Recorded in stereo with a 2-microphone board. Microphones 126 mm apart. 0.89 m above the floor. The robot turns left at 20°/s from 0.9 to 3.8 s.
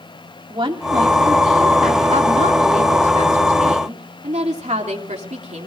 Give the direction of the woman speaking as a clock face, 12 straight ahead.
2 o'clock.